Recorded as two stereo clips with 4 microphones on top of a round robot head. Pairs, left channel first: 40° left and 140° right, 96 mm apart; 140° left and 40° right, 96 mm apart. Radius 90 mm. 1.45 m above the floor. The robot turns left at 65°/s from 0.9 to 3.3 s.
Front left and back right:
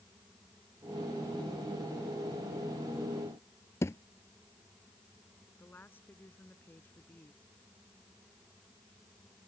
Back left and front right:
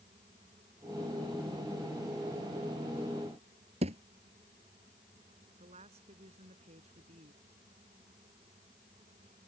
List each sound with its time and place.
3.8 s a thud: 25° right
5.6 s a woman speaking: 30° right